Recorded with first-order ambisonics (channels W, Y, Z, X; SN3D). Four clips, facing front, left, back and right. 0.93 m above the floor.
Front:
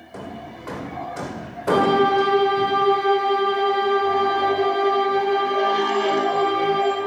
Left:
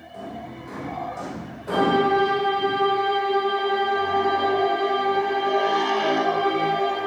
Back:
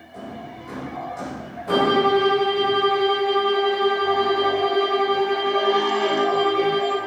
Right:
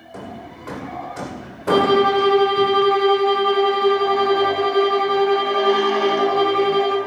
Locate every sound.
0.1 s hammering: 45° right, 1.6 m
1.7 s a violin: 95° right, 1.9 m